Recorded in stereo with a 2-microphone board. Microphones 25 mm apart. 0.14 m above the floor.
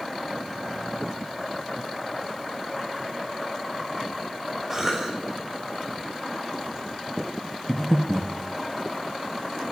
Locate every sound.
4.7 s a cough: 15° right (ahead or behind), 1.8 m
7.7 s breathing: 25° left (ahead or behind), 0.7 m